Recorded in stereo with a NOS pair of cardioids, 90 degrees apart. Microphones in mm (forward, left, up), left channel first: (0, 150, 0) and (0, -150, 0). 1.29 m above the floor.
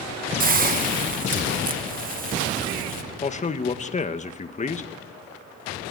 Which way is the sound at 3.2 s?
25° left.